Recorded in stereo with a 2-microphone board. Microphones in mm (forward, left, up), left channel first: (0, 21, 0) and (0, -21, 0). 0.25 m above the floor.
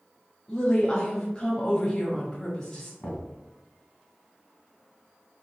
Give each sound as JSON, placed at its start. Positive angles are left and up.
{"t": 0.5, "sound": "a woman speaking", "side_deg": 20, "distance_m": 1.2}
{"t": 3.0, "sound": "knocking", "side_deg": 25, "distance_m": 1.9}